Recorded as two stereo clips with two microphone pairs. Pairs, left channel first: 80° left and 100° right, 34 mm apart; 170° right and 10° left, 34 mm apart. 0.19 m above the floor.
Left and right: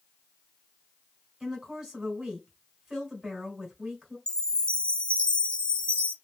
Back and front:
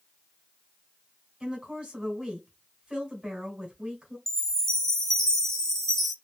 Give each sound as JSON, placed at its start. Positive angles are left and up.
{"t": 1.4, "sound": "a woman speaking", "azimuth_deg": -25, "distance_m": 1.8}
{"t": 4.3, "sound": "a chime", "azimuth_deg": 120, "distance_m": 0.7}